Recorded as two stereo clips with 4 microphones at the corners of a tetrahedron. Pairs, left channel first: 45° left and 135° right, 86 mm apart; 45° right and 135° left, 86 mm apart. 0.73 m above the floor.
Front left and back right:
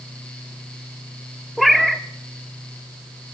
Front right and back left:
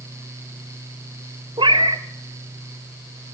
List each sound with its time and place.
1.6 s a cat meowing: 135° left, 0.7 m